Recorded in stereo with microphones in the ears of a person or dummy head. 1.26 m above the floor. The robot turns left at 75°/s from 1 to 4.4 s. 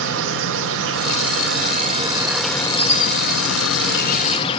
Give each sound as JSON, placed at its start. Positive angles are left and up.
{"t": 0.0, "sound": "an insect", "azimuth_deg": -75, "distance_m": 1.2}